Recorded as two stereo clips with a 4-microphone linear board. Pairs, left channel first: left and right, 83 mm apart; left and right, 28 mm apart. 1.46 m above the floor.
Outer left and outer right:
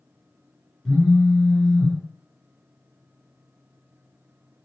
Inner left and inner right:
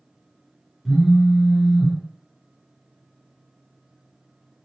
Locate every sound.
0.8 s a phone buzzing: 5° left (ahead or behind), 0.7 m